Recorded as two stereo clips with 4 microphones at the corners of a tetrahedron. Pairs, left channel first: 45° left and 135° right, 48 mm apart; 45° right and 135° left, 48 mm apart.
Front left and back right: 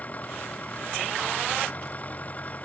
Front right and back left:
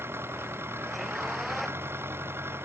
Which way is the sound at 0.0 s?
100° left.